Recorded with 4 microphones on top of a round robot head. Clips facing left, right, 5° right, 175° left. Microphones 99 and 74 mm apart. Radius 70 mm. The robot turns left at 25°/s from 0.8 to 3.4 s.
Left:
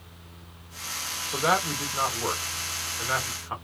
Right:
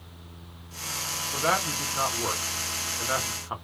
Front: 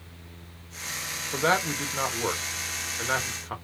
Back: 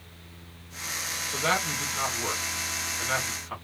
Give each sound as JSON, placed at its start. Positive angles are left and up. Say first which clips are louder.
{"t": 1.3, "sound": "a man speaking", "louder": "left 2 dB, front 3 dB", "azimuth_deg": 25, "distance_m": 0.9}